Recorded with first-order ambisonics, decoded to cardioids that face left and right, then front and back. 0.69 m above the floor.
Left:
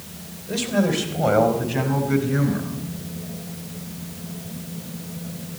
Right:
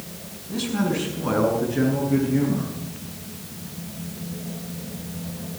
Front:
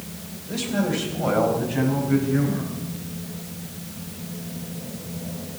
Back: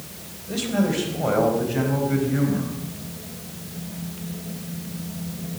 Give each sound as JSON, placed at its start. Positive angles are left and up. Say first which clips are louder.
{"t": 0.5, "sound": "a man speaking", "louder": "left 4 dB, back 1 dB", "azimuth_deg": 115, "distance_m": 4.5}